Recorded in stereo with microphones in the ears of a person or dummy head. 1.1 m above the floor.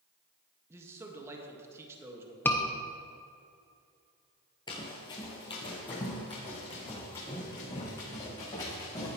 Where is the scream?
10° left (ahead or behind), 0.8 m.